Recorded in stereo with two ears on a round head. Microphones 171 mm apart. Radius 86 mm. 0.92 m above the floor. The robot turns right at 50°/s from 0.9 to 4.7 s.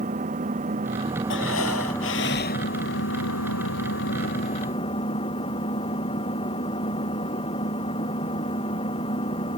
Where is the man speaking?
No man speaking in this recording.